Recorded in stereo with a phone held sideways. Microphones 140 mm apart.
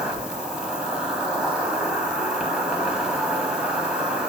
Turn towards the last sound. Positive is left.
turn(degrees=-5)  # may be behind; listen again after turning